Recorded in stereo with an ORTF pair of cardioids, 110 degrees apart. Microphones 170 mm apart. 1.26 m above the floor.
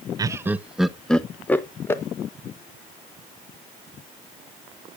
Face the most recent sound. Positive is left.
turn(degrees=15)